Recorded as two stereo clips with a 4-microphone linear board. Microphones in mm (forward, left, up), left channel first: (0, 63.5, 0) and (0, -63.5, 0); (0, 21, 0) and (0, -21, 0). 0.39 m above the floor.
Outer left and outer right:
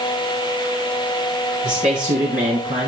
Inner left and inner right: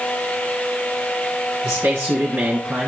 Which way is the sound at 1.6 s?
75° right (ahead or behind).